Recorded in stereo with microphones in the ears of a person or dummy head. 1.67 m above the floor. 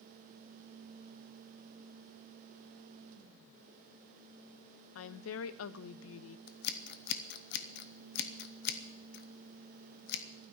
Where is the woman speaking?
70° left (ahead or behind), 0.7 m.